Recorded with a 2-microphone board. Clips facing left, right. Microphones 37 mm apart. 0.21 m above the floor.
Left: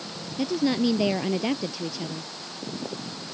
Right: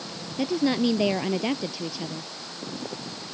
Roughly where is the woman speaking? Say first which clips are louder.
Even; centre.